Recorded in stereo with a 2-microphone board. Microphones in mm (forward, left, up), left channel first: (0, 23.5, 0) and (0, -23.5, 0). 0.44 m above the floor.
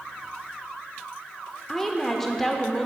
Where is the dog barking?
I don't hear a dog barking.